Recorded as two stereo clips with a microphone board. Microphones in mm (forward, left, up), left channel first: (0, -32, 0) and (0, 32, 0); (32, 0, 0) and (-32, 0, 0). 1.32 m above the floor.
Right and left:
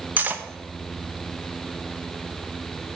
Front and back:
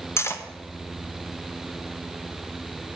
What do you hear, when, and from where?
0.2 s cutlery clinking: 35° left, 0.7 m